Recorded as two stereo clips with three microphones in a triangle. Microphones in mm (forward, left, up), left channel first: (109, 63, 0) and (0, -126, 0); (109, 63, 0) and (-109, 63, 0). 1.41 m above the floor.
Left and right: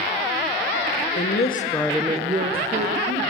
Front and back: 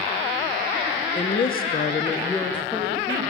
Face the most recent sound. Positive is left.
turn(degrees=-90)